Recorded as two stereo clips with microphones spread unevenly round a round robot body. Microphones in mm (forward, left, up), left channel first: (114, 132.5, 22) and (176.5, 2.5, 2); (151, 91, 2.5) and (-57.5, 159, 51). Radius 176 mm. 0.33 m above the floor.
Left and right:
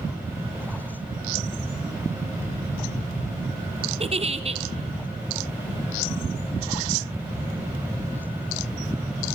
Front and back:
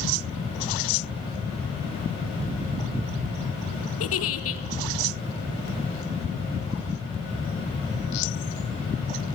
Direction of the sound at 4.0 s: 15° right.